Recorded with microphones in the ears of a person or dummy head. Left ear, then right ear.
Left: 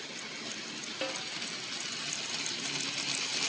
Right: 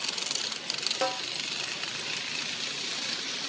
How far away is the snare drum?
About 0.8 m.